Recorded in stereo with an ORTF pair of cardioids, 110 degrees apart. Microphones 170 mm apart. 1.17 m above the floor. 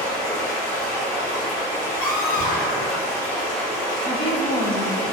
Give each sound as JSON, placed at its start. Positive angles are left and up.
{"t": 0.0, "sound": "running water", "azimuth_deg": 60, "distance_m": 1.2}
{"t": 2.0, "sound": "a scream", "azimuth_deg": 60, "distance_m": 1.9}
{"t": 4.0, "sound": "a woman speaking", "azimuth_deg": 30, "distance_m": 0.9}